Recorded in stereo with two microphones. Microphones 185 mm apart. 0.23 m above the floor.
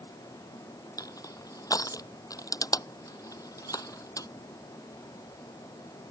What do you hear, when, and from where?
1.0 s crushing: 20° left (ahead or behind)